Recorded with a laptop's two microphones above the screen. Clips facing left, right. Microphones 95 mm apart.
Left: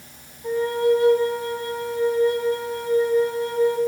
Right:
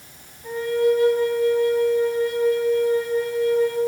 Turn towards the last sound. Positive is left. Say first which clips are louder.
# even
turn(degrees=35)  # may be behind; listen again after turning